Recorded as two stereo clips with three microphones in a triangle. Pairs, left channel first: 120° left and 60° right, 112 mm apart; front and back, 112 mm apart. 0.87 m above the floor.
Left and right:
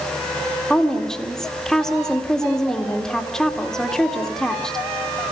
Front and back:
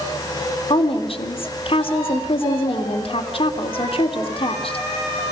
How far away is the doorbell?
No doorbell in this recording.